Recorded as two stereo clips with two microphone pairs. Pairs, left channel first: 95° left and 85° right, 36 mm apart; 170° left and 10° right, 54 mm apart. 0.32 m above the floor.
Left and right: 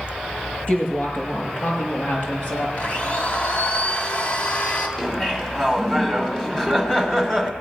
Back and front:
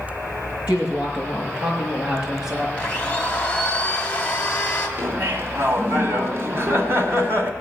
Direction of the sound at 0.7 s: 55° left.